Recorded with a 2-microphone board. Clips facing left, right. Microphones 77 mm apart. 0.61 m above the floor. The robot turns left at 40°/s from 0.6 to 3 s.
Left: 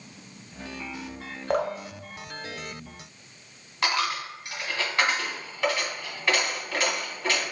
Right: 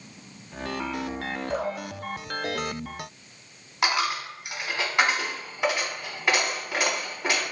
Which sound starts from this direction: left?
Dripping, at 1.5 s.